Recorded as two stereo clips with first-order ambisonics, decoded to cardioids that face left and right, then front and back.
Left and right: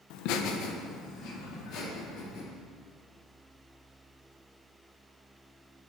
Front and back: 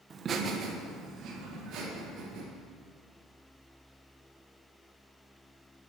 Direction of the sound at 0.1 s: 110° left.